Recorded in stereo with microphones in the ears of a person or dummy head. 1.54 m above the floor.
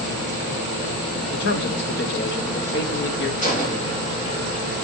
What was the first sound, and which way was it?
A man speaking, 65° left (ahead or behind).